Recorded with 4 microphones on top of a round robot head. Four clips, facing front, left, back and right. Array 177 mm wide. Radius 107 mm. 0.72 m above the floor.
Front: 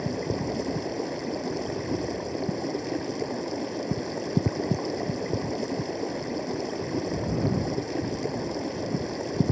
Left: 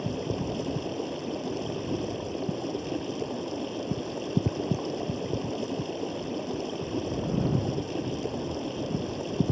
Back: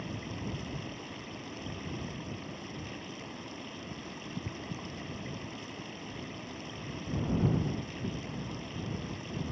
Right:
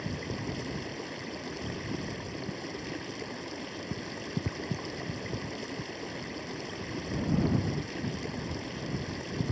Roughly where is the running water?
Ahead left.